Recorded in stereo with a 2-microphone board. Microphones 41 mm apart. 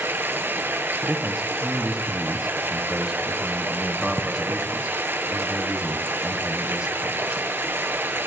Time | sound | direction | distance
0.0 | running water | 60° right (ahead or behind) | 1.2 m
1.0 | a man speaking | 15° right (ahead or behind) | 1.3 m